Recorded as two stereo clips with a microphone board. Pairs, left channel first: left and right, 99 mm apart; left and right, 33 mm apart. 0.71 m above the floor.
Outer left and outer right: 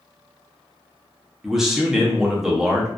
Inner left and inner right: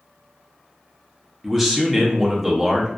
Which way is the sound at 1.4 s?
5° right (ahead or behind).